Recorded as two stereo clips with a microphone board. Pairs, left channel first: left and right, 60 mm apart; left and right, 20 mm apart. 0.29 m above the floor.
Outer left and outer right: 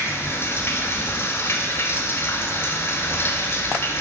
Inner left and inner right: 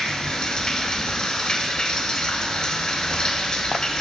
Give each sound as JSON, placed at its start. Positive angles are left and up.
{"t": 0.0, "sound": "running water", "side_deg": 45, "distance_m": 1.0}